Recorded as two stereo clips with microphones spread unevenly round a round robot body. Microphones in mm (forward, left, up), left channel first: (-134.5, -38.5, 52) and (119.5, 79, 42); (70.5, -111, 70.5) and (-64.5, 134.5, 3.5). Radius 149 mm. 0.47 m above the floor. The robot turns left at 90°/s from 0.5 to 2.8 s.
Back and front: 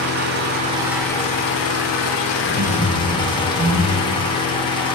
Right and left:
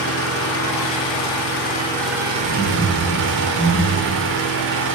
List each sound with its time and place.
0.0 s an engine running: 20° right, 1.1 m; by 5.0 s 135° left, 1.1 m
2.4 s laughter: 55° left, 2 m; by 4.2 s 20° left, 2 m